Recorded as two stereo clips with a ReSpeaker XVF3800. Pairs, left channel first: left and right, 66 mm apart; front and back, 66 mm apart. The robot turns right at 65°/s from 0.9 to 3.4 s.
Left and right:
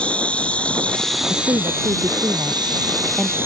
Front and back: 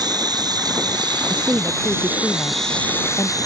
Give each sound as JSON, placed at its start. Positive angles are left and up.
{"t": 0.0, "sound": "an insect", "azimuth_deg": 165}
{"t": 1.3, "sound": "a woman speaking", "azimuth_deg": -125}